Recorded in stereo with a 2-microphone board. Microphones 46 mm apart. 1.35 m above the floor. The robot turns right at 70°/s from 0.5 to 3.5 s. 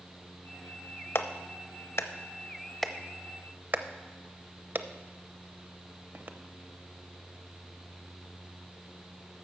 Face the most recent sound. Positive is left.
turn(degrees=-40)  # may be behind; listen again after turning